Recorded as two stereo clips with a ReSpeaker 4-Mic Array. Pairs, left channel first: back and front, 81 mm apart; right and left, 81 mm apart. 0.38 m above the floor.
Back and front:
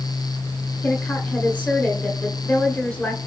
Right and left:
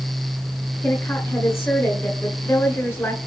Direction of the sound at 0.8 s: 120° right.